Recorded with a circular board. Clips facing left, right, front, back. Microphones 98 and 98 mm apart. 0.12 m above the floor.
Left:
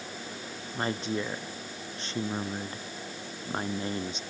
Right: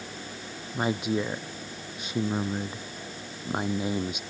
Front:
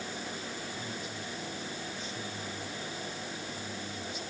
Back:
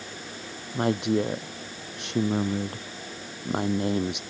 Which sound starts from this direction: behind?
A woman speaking, at 0.7 s.